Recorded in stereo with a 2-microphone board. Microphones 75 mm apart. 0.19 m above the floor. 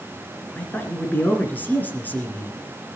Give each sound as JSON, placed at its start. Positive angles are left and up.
{"t": 0.6, "sound": "a man speaking", "side_deg": 25, "distance_m": 2.5}